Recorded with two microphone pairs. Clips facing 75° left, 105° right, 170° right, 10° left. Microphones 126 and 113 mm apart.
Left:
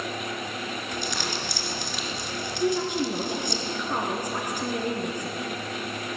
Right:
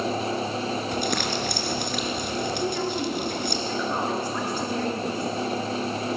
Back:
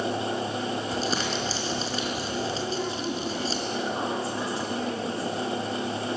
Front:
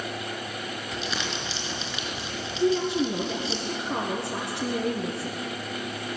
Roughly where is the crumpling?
Behind right.